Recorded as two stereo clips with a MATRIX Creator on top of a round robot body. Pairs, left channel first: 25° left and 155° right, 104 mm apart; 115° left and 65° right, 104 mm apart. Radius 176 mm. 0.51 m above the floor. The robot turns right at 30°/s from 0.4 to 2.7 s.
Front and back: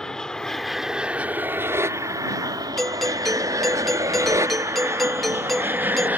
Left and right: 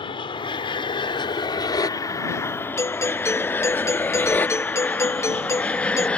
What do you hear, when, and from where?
0.0 s an aircraft: 105° left; by 6.2 s 170° left
2.8 s a doorbell: 110° left